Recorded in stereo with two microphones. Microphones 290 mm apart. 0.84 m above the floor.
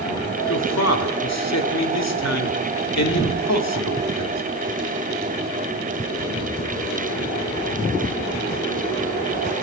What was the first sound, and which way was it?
A man speaking, 60° left (ahead or behind).